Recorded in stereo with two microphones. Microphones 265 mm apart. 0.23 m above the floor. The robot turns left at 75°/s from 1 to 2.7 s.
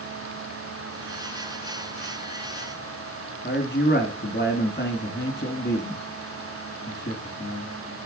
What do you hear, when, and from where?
3.4 s a man speaking: 40° left (ahead or behind), 2.5 m